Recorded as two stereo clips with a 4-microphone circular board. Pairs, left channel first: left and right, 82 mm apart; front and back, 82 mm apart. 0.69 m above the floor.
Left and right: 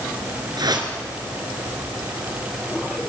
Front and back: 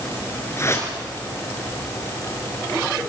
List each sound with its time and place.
0.6 s a whoosh: 55° right, 4.5 m